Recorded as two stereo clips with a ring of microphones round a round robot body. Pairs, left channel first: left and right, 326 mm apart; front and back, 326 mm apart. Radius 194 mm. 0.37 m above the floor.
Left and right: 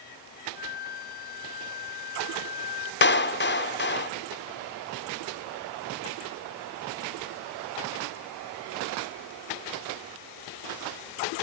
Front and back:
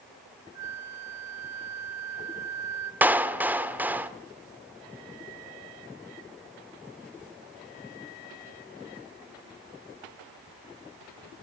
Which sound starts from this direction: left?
A clap, at 3.0 s.